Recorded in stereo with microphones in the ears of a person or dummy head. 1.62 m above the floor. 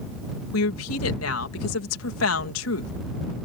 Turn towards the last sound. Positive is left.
turn(degrees=85)